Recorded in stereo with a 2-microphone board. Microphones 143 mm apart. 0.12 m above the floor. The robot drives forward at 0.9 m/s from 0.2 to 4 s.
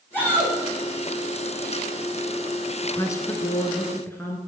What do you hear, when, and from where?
0.1 s a shout: 15° left (ahead or behind), 7 m
2.8 s a woman speaking: 20° left (ahead or behind), 1.1 m